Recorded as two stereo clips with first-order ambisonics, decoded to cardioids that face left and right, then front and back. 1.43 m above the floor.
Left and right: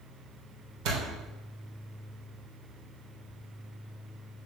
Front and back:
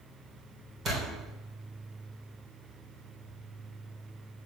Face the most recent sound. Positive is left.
turn(degrees=-115)